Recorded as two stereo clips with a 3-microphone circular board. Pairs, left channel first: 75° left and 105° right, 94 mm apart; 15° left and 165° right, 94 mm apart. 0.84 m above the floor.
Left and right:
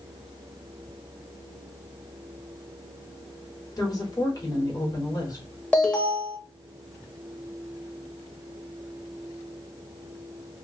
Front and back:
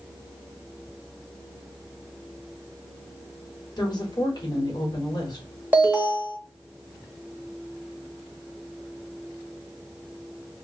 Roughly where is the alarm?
Behind left.